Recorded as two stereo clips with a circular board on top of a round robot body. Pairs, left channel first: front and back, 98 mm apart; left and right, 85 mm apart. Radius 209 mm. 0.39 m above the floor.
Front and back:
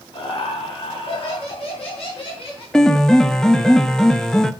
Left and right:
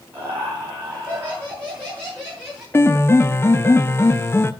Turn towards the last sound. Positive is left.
turn(degrees=75)